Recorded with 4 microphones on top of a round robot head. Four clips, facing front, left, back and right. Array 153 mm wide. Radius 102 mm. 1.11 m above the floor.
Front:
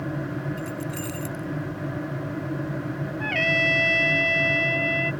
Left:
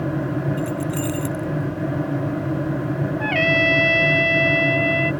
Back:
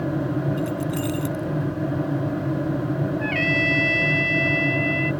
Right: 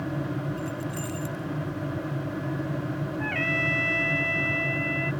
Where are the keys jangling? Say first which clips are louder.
Left 8 dB, back 6 dB; 115° left.